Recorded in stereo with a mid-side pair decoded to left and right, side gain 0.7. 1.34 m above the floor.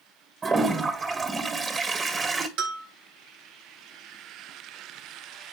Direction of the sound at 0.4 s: 30° right.